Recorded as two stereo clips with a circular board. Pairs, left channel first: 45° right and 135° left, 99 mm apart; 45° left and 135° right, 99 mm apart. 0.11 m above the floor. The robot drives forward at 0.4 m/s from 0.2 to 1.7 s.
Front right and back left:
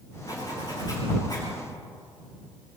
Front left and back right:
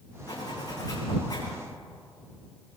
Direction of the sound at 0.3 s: Straight ahead.